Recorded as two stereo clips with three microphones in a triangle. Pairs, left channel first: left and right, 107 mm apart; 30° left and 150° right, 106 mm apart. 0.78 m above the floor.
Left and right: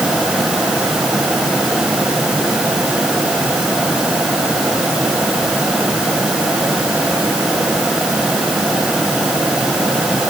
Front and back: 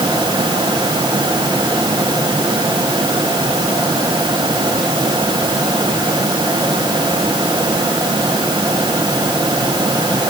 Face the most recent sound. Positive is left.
No sound to turn to.